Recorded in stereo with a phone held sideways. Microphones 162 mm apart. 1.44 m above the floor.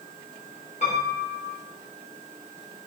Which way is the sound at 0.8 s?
50° left (ahead or behind).